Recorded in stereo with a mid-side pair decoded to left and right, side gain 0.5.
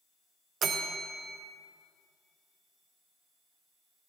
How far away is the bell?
About 0.8 m.